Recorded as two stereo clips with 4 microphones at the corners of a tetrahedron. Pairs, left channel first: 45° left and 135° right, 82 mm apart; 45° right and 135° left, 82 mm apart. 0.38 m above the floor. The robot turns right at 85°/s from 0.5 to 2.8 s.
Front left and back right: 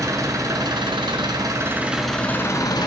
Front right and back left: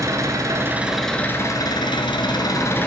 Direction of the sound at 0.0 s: Straight behind.